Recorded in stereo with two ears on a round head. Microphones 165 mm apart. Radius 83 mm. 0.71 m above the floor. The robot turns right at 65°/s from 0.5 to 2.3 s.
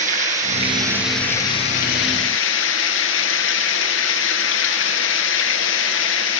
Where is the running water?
40° right, 7.5 m; by 6.4 s 75° left, 7.5 m.